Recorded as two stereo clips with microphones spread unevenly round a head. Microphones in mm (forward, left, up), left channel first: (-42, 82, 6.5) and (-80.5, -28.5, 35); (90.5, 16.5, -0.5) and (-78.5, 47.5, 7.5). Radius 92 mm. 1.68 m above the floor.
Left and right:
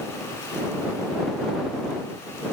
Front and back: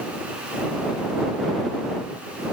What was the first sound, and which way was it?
Only background noise.